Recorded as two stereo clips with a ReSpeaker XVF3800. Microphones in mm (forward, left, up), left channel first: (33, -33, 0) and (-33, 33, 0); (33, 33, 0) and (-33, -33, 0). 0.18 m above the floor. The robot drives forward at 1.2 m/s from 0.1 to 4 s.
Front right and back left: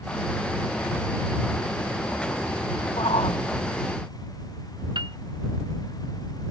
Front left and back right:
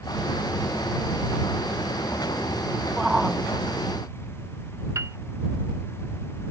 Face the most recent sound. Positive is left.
turn(degrees=170)